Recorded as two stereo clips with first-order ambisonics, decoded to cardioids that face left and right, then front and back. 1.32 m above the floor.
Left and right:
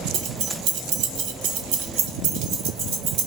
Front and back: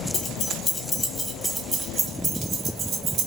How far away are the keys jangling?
About 1.1 m.